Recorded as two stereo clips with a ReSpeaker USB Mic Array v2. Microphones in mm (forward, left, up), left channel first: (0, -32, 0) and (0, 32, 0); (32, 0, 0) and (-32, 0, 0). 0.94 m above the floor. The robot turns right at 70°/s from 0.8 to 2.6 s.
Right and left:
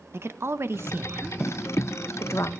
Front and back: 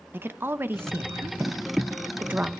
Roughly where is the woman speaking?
Behind left.